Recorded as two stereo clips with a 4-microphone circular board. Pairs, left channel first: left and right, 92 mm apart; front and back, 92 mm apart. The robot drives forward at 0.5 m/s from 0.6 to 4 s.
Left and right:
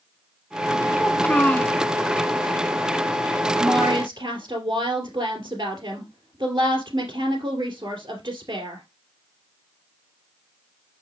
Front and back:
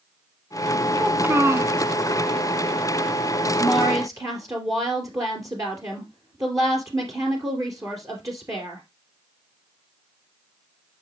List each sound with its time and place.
1.0 s a child speaking: 115° left, 0.6 m; by 1.8 s 155° left, 0.8 m
3.6 s a woman speaking: 125° right, 2.5 m; by 8.8 s 130° right, 2.5 m